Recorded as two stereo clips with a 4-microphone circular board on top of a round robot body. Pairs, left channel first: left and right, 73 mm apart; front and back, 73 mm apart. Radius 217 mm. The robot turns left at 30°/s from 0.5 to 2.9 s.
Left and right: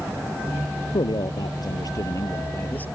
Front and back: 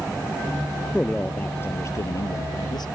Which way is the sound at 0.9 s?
80° left.